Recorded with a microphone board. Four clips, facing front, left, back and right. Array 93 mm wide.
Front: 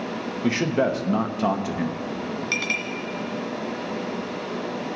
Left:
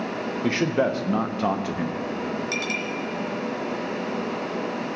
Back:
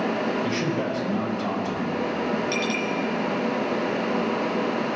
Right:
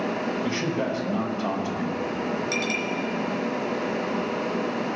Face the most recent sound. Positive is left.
turn(degrees=5)